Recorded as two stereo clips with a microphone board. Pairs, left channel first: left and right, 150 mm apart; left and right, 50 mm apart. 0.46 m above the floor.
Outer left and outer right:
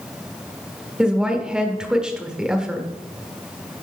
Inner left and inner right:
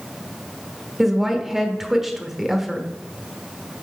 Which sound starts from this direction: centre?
A woman speaking, at 1.0 s.